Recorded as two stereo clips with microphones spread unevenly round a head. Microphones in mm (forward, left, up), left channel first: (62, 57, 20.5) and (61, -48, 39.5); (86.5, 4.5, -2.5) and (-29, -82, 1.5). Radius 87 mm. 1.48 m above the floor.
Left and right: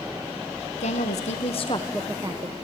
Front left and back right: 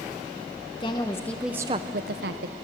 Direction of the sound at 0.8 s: 100° left.